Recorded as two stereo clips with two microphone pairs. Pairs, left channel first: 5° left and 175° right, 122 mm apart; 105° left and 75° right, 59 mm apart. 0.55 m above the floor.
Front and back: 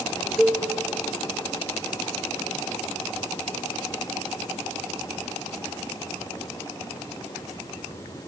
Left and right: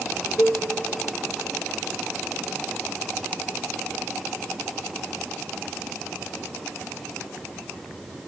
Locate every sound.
0.4 s a cowbell: 95° left, 0.6 m